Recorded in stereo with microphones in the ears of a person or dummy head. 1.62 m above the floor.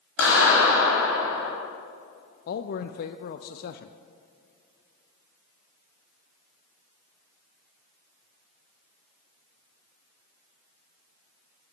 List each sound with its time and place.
0.2 s a clap: 75° left (ahead or behind), 3.5 m
2.5 s a man speaking: 50° left (ahead or behind), 0.5 m